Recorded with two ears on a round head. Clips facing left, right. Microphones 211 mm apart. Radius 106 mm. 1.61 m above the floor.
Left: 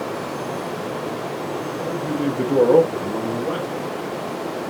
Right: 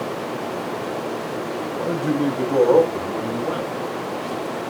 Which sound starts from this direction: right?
A man speaking, at 1.7 s.